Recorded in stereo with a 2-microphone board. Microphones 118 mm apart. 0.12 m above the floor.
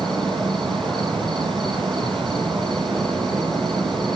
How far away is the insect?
About 1.1 m.